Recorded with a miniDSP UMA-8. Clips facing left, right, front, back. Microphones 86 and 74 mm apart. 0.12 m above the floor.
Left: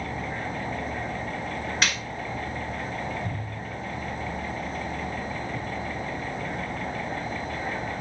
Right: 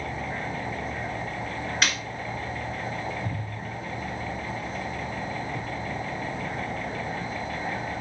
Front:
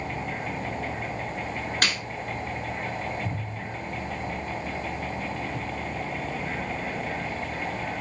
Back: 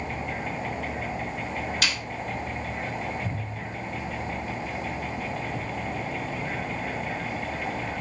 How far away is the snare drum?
About 1.1 m.